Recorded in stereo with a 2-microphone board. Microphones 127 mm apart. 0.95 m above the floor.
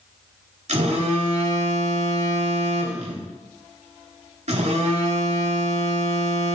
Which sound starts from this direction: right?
A phone buzzing, at 0.7 s.